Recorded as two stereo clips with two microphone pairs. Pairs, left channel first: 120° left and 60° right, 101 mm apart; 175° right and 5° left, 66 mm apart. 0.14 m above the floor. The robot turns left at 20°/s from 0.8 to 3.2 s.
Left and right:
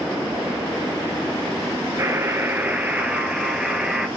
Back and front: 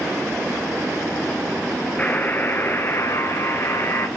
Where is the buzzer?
120° right, 1.1 m; by 4.1 s 140° right, 1.1 m.